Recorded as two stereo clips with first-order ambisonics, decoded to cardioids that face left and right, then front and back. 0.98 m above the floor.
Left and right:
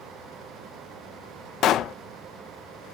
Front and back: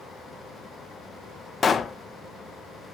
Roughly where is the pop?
Ahead left.